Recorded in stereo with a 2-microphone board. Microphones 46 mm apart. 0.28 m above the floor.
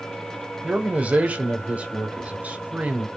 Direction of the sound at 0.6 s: 30° right (ahead or behind).